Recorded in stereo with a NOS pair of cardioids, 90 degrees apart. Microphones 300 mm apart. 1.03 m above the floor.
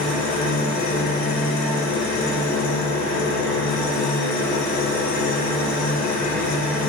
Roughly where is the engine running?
Ahead left.